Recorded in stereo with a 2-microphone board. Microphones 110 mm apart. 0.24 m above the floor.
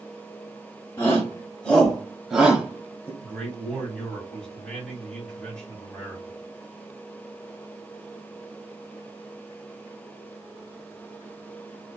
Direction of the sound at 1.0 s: 20° left (ahead or behind).